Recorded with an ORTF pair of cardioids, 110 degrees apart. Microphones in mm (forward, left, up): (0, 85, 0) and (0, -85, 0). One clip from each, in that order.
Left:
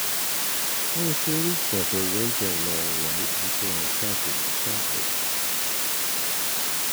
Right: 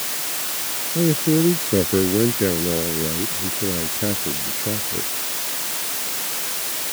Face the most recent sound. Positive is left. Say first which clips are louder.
# right 10 dB
turn(degrees=-55)